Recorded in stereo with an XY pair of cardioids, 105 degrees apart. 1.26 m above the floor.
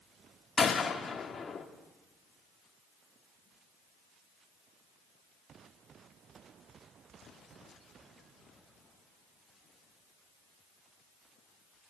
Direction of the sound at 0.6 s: 35° left.